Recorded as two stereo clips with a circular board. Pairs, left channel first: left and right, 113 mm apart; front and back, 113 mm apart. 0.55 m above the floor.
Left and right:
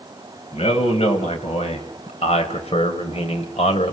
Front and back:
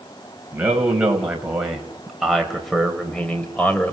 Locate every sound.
0.5 s a man speaking: 100° left, 3.5 m; by 3.9 s 75° left, 2.5 m